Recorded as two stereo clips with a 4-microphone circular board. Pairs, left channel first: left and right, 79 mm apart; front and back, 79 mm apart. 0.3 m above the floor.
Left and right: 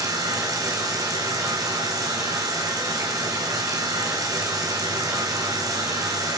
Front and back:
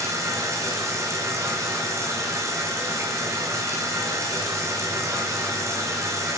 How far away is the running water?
About 3.5 m.